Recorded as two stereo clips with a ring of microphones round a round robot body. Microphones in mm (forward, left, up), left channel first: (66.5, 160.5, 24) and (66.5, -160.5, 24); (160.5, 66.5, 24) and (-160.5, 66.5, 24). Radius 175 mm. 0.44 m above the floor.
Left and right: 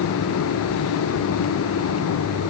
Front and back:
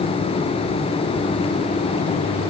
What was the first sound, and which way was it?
Only background noise.